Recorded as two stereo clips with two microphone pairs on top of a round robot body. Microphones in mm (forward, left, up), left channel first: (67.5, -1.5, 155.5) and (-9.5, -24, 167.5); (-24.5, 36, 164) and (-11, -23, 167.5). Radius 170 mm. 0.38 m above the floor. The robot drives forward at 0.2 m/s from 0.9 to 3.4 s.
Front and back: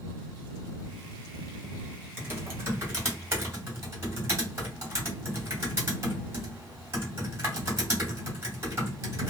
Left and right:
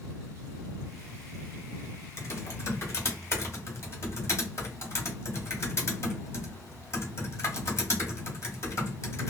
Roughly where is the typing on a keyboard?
Behind left.